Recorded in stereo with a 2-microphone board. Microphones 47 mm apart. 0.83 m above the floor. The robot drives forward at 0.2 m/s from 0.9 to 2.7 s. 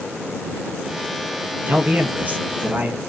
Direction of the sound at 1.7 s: 30° right (ahead or behind).